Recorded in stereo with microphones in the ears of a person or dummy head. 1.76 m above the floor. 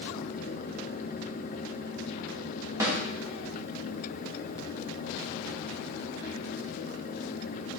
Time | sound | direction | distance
2.8 | a snare drum | 15° right (ahead or behind) | 2.5 m